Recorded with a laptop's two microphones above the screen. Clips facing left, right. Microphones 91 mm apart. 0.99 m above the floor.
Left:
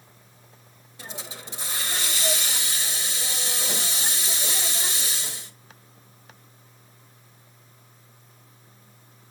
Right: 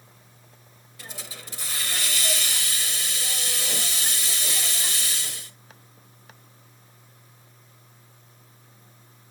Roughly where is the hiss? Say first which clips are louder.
Left 3 dB; left.